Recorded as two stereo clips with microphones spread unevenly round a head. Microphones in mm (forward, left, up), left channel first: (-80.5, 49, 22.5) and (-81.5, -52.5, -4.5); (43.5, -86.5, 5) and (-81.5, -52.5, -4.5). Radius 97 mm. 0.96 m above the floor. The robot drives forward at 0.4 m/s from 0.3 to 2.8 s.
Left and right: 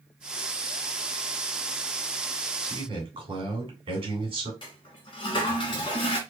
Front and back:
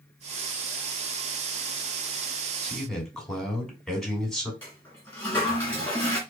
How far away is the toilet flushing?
About 1.0 m.